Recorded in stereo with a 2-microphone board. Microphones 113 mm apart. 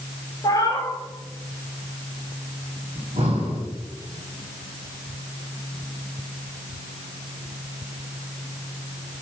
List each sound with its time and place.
0.4 s a cat meowing: 30° left (ahead or behind), 1.0 m
3.0 s breathing: 55° right (ahead or behind), 2.5 m